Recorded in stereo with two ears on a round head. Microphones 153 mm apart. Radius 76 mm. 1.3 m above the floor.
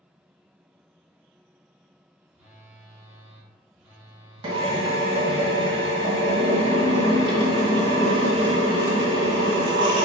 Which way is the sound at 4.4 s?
25° right (ahead or behind).